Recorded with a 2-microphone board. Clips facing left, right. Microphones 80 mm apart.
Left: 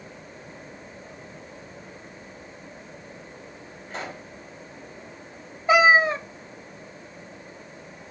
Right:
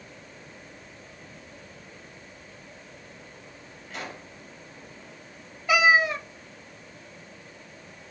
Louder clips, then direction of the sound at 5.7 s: Left 4 dB; 30° left (ahead or behind).